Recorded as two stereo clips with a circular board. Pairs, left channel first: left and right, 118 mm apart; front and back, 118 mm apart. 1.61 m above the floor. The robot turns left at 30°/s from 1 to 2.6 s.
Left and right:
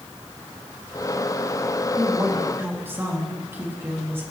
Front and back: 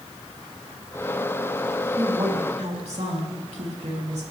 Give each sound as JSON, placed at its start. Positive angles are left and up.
{"t": 2.0, "sound": "a woman speaking", "azimuth_deg": -140, "distance_m": 3.0}